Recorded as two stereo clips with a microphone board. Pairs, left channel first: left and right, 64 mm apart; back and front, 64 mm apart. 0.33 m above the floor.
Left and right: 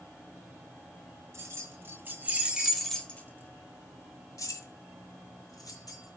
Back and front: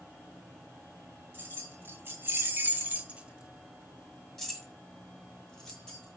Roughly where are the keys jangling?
Ahead right.